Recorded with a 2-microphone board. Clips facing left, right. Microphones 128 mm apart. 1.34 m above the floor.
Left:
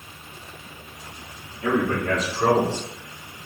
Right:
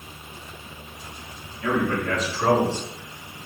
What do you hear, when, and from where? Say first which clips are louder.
1.6 s a man speaking: left 1 dB; 30° left (ahead or behind), 4 m; by 3.4 s 45° left (ahead or behind), 4.5 m